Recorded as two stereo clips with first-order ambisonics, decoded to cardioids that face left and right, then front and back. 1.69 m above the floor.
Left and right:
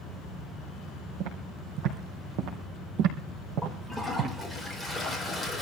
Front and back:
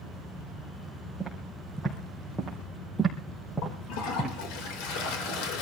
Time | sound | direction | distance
1.2 | footsteps | 85° right | 4.5 m
3.6 | a toilet flushing | 5° right | 4.5 m